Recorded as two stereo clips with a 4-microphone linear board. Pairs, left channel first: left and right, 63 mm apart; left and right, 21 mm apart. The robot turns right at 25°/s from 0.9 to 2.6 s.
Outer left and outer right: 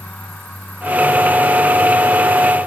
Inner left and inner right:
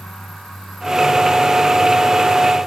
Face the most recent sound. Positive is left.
No sound to turn to.